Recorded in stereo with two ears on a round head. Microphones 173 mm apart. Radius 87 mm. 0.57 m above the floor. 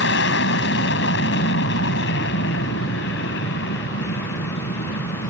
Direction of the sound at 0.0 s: 65° left (ahead or behind).